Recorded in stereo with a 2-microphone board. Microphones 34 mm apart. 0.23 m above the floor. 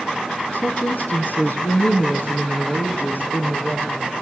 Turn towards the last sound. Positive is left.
turn(degrees=75)  # may be behind; listen again after turning